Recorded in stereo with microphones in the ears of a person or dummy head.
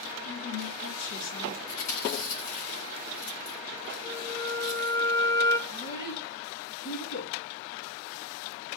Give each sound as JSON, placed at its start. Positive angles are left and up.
{"t": 0.2, "sound": "a woman speaking", "side_deg": 85, "distance_m": 5.0}
{"t": 1.7, "sound": "chewing", "side_deg": 85, "distance_m": 7.5}
{"t": 4.0, "sound": "a flute", "side_deg": 15, "distance_m": 1.5}
{"t": 5.7, "sound": "a child speaking", "side_deg": 45, "distance_m": 2.5}